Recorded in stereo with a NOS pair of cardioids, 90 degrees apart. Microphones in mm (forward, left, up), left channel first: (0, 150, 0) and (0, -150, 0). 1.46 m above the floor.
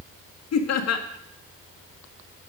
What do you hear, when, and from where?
0.5 s laughter: 60° left, 2 m